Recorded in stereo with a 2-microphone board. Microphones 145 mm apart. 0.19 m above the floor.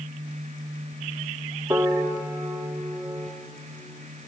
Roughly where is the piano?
Centre.